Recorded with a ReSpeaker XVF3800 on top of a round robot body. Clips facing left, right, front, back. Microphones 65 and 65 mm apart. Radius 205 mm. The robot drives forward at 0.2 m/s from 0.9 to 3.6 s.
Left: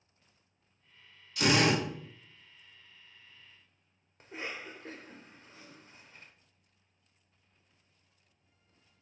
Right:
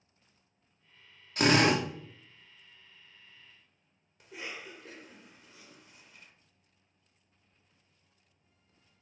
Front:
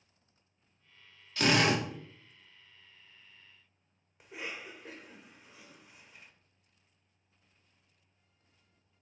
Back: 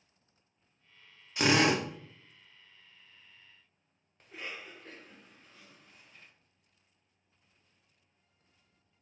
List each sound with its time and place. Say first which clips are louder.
1.4 s a drill: right 2 dB, back 1 dB; 115° right, 1.0 m; by 1.8 s 120° right, 1.0 m
4.2 s a cough: left 2 dB, front 1 dB; 70° left, 0.9 m